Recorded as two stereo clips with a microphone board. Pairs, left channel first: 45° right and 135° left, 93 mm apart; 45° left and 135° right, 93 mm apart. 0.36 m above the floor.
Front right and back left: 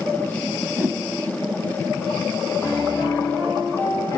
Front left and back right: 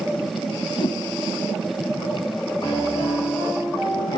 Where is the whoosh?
70° left, 1.6 m.